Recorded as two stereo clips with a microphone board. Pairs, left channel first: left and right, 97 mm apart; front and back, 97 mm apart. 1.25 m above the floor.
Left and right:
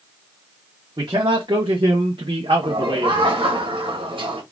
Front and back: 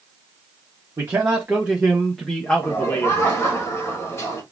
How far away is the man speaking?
About 1.3 m.